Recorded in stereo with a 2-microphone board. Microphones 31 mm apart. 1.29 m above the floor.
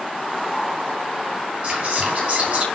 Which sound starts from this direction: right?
Whispering, at 1.6 s.